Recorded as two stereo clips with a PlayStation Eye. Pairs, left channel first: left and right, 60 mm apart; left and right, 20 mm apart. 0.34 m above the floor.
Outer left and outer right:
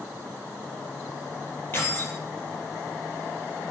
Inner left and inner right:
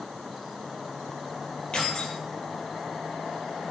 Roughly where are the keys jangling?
Left.